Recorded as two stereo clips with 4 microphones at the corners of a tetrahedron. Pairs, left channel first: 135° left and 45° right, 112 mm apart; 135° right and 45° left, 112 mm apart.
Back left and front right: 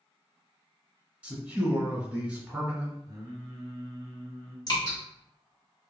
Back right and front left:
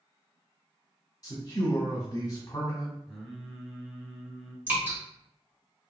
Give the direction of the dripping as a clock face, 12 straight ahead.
8 o'clock.